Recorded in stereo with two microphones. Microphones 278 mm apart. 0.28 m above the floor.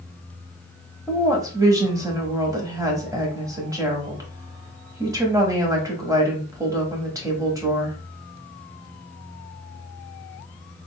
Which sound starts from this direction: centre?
A woman speaking, at 1.1 s.